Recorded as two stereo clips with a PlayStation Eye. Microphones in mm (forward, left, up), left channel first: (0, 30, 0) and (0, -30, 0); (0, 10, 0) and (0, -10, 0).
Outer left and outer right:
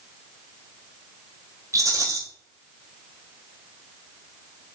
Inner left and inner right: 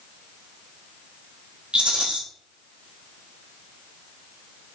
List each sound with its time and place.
1.7 s a rattle: 60° right (ahead or behind), 1.3 m